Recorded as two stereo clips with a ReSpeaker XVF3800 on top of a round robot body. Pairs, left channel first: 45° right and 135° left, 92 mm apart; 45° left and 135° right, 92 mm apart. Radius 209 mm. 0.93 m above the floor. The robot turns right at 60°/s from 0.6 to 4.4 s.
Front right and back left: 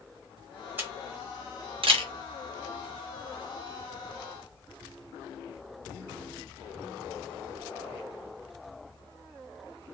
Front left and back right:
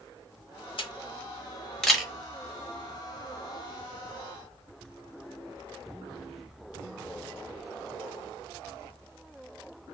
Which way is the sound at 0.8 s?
65° left.